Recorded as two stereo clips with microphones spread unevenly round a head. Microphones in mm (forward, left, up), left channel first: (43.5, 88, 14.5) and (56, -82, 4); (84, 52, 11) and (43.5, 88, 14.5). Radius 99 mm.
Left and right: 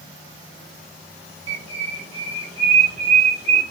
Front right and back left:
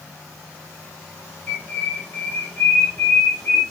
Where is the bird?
85° right, 1.1 m.